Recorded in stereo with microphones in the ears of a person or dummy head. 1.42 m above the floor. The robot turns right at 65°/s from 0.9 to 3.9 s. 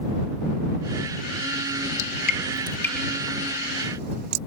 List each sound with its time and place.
2.0 s dripping: 65° left (ahead or behind); by 4.4 s 55° right (ahead or behind)